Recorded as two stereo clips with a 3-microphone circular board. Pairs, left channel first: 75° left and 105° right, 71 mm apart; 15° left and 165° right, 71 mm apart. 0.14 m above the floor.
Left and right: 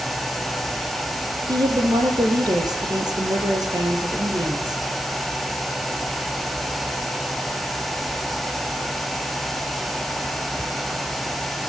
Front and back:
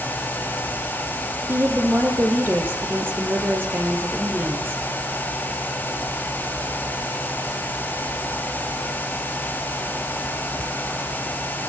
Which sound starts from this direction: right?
A woman speaking, at 1.5 s.